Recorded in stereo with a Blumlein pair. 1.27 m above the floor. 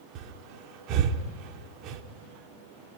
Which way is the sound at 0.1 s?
40° right.